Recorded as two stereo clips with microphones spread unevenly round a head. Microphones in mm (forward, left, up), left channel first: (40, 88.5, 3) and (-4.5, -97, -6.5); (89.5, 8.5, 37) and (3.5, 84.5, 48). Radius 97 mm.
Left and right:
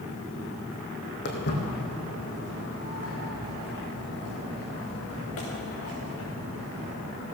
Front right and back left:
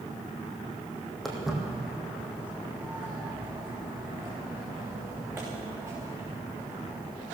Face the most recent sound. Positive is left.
turn(degrees=75)